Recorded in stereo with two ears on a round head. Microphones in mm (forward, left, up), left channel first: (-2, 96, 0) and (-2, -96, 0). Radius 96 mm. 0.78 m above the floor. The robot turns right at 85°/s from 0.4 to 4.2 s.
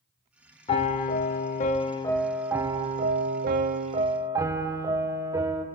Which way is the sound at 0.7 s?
40° left.